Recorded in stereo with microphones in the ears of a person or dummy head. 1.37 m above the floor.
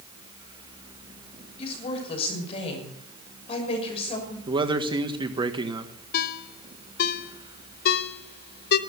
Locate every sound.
1.6 s a woman speaking: 35° left (ahead or behind), 6 m
4.5 s a man speaking: 25° right (ahead or behind), 1.5 m
6.1 s a ringtone: 60° left (ahead or behind), 1.1 m